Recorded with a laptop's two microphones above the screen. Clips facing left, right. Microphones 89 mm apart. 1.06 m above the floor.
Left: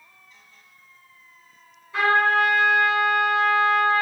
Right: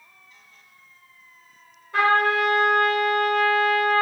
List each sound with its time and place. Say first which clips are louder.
1.9 s a trumpet: even; 60° right (ahead or behind), 1.3 m